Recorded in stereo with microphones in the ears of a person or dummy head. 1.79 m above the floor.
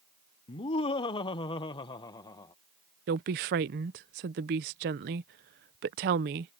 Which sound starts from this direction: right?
A woman speaking, at 3.1 s.